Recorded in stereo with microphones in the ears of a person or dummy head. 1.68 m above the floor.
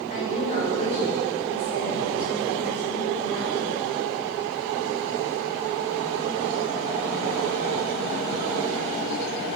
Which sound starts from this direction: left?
A woman speaking, at 0.1 s.